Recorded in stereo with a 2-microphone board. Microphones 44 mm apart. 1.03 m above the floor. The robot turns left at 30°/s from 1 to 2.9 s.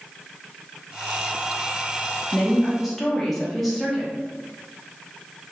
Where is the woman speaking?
20° left (ahead or behind), 1.0 m; by 4.1 s 5° left (ahead or behind), 1.0 m.